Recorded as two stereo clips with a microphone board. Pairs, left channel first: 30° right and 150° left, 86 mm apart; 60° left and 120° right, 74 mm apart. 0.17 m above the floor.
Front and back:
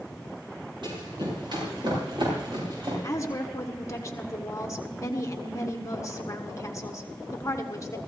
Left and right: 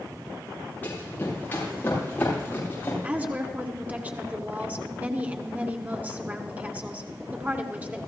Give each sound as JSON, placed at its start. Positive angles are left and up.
{"t": 0.8, "sound": "running footsteps", "azimuth_deg": 125, "distance_m": 8.0}
{"t": 3.0, "sound": "a woman speaking", "azimuth_deg": -60, "distance_m": 1.5}